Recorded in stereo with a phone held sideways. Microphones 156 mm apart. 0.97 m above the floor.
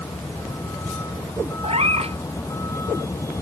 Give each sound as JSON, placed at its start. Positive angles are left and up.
{"t": 0.0, "sound": "a vehicle", "side_deg": 15}
{"t": 1.6, "sound": "a cat meowing", "side_deg": -40}